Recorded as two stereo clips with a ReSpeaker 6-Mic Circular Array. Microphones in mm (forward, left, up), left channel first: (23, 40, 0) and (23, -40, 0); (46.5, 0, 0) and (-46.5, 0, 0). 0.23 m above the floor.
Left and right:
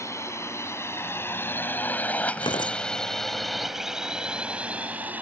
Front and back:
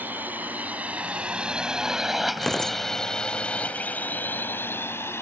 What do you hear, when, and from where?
0.0 s a drone: 120° left; by 5.2 s 40° right
2.4 s tearing paper: 85° left